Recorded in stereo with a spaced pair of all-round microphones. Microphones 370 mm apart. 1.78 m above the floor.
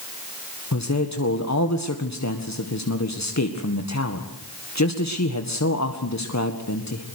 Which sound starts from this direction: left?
A man speaking, at 0.7 s.